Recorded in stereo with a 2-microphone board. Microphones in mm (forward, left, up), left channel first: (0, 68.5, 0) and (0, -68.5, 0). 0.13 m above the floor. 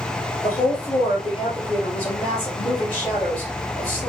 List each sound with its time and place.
0.4 s a woman speaking: 40° left (ahead or behind), 3 m